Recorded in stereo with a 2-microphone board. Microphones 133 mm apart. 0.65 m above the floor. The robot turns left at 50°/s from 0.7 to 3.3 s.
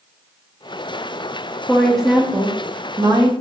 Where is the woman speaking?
15° left, 0.7 m; by 3.3 s 70° right, 0.7 m.